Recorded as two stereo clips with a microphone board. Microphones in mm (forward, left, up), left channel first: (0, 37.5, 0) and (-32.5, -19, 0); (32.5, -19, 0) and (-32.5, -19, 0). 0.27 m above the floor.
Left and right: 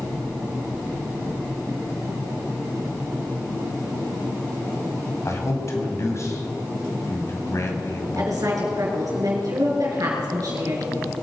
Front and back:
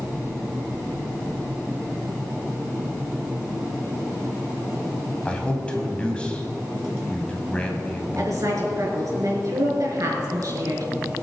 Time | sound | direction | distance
5.2 | a man speaking | 70° left | 2 m
8.2 | a woman speaking | 150° right | 4 m